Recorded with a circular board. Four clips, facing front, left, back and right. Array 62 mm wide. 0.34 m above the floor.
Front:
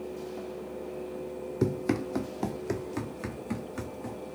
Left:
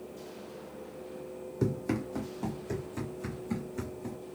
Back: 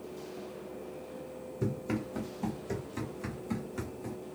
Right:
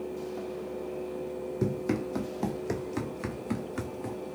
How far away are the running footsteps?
About 0.8 m.